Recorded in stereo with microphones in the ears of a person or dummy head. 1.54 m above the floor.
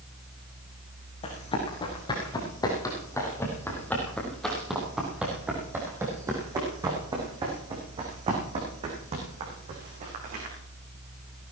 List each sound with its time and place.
1.2 s running footsteps: 30° left (ahead or behind), 5 m; by 10.5 s 45° right (ahead or behind), 7 m